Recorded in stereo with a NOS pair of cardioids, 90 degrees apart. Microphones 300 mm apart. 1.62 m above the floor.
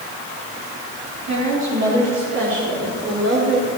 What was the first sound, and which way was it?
A woman speaking, 65° right.